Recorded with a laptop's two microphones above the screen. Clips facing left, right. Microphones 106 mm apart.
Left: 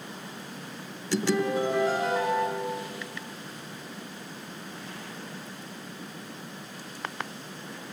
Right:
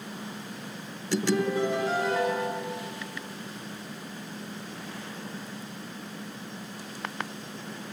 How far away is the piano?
About 7.5 m.